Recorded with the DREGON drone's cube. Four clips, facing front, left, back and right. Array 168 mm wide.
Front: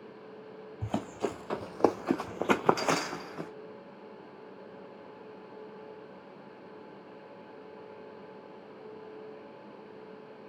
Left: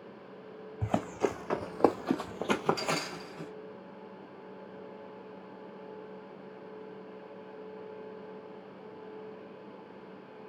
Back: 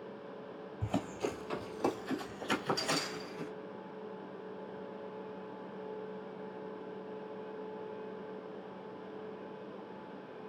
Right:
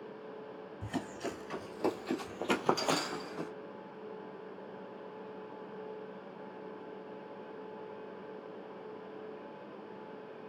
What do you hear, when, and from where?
0.8 s running footsteps: 80° left, 1.0 m; by 3.5 s 30° right, 1.0 m